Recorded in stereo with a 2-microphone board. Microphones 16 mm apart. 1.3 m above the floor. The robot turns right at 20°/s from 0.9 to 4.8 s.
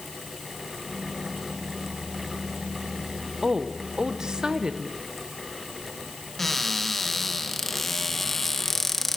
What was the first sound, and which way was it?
A woman speaking, 50° right (ahead or behind).